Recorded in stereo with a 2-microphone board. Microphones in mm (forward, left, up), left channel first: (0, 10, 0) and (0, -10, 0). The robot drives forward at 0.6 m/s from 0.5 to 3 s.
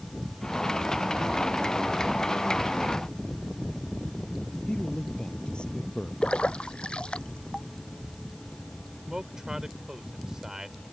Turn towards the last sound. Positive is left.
turn(degrees=-30)  # may be behind; listen again after turning